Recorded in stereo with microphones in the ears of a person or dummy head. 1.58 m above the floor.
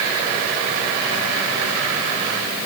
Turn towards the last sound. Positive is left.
No sound to turn to.